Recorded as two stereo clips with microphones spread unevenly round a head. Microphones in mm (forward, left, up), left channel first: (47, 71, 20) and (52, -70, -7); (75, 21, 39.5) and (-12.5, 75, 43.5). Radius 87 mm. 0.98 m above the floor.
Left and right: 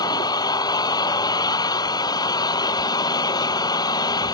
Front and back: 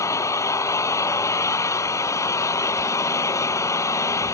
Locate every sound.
0.0 s an engine running: 30° left